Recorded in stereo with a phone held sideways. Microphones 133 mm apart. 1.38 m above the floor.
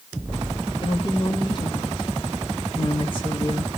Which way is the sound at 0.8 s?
45° left (ahead or behind).